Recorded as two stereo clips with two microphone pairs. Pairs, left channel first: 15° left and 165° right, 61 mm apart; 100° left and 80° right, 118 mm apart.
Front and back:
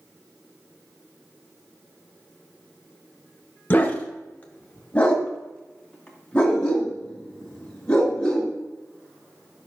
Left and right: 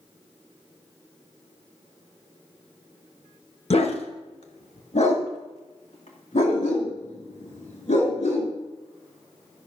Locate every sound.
3.7 s a dog barking: 70° left, 1.3 m; by 8.5 s 90° left, 4 m